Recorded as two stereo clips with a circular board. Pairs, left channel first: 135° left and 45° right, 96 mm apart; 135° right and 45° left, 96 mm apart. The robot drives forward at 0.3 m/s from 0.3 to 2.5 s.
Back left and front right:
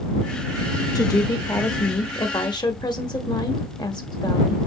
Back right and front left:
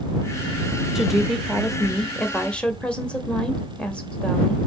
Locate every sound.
0.9 s a woman speaking: 130° left, 1.1 m; by 4.6 s 150° left, 1.3 m